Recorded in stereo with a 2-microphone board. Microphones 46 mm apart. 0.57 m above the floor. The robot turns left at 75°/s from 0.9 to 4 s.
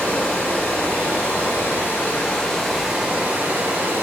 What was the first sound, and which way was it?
Running water, 140° left.